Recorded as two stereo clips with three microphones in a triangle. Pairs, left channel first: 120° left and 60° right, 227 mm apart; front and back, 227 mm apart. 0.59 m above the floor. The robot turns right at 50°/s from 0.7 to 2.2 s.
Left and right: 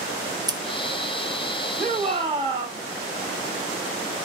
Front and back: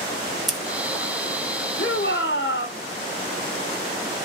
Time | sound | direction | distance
0.5 | scissors | 90° right | 0.9 m
1.8 | a shout | 5° right | 1.4 m